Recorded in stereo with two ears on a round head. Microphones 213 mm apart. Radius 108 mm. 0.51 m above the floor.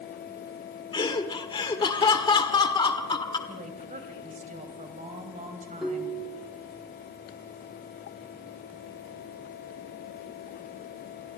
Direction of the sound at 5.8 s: Centre (ahead or behind).